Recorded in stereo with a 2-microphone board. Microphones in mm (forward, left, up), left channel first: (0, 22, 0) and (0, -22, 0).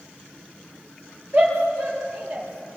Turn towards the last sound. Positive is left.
turn(degrees=-50)  # may be behind; listen again after turning